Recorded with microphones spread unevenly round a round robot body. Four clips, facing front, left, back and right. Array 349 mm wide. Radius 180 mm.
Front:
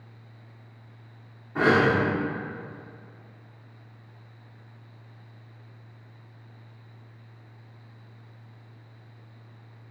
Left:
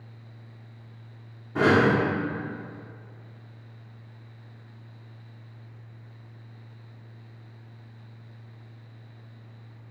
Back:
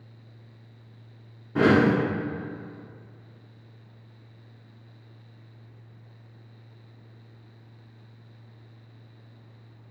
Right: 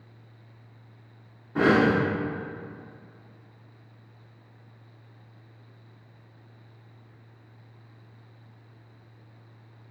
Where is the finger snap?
I don't hear a finger snap.